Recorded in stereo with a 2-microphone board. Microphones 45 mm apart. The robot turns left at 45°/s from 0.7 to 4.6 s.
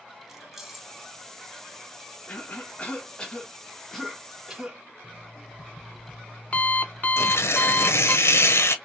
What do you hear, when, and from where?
0.3 s keys jangling: 5° right (ahead or behind), 0.8 m; by 0.9 s centre (ahead or behind), 0.8 m
2.3 s a cough: 80° left, 1.4 m; by 4.8 s 25° right, 1.4 m
5.0 s an alarm clock: 35° left (ahead or behind), 0.9 m
7.2 s tearing paper: 70° left (ahead or behind), 0.7 m